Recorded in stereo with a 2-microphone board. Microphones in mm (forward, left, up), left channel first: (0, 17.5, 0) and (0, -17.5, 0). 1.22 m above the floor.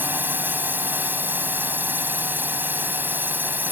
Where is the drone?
65° right (ahead or behind).